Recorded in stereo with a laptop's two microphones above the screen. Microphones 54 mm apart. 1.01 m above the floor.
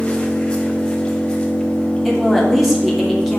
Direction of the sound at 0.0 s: 25° left (ahead or behind).